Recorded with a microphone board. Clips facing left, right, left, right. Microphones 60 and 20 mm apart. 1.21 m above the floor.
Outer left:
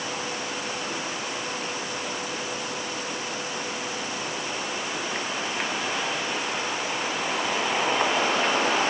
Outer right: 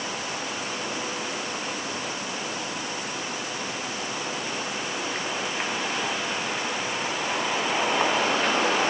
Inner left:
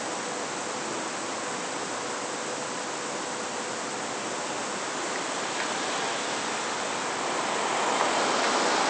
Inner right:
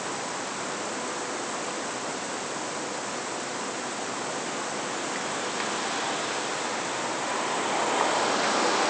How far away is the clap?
No clap in this recording.